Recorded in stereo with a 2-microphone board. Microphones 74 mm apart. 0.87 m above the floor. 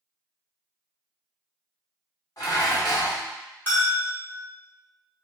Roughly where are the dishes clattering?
Left.